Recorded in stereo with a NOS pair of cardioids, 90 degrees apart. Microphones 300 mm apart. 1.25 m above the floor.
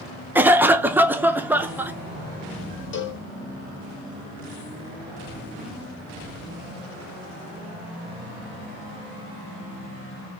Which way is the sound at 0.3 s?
5° right.